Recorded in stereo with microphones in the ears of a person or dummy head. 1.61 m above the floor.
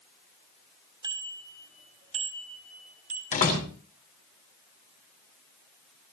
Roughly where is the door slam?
Left.